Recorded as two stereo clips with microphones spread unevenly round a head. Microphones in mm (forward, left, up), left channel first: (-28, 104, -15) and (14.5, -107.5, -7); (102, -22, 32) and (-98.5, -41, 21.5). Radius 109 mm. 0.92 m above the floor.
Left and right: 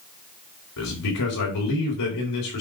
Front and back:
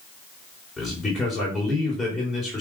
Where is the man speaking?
95° left, 3.5 m.